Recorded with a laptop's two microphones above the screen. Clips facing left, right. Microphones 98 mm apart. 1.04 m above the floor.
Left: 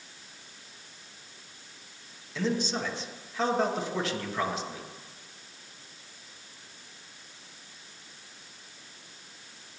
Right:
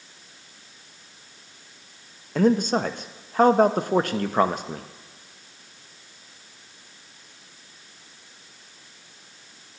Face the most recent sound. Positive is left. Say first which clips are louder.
# right 10 dB
turn(degrees=-50)  # may be behind; listen again after turning